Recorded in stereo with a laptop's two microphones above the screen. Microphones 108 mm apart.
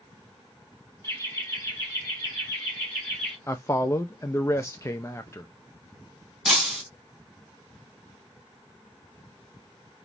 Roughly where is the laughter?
Left.